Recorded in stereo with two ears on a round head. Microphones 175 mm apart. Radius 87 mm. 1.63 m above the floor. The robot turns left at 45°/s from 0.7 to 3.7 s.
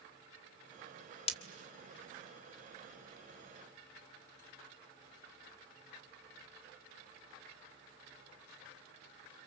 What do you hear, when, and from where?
1.3 s breaking glass: 35° left (ahead or behind), 1.9 m; by 1.4 s 30° left (ahead or behind), 1.9 m